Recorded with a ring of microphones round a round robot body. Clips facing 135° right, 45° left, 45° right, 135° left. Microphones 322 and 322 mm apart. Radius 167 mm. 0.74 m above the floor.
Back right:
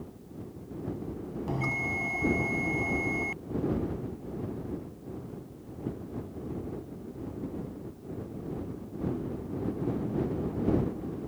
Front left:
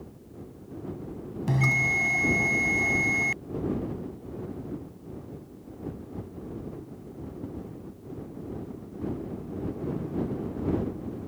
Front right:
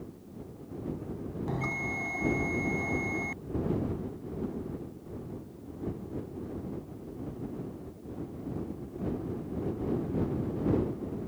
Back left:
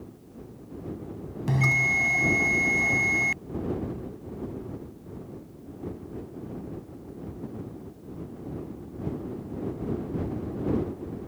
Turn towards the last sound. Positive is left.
turn(degrees=95)